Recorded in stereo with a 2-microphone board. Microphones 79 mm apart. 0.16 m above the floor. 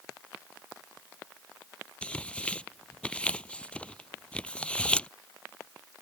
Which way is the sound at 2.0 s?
15° left (ahead or behind).